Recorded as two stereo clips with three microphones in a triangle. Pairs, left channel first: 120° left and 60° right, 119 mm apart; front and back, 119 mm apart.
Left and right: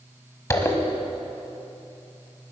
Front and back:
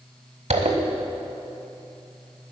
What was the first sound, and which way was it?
A zipper, 175° right.